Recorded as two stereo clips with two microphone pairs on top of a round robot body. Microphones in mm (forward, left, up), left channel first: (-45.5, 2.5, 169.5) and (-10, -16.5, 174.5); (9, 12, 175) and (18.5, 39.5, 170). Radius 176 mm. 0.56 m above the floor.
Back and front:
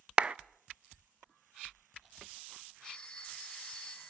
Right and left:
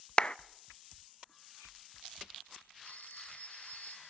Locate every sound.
0.2 s a clap: 75° right, 0.8 m
2.8 s a phone ringing: 135° right, 7 m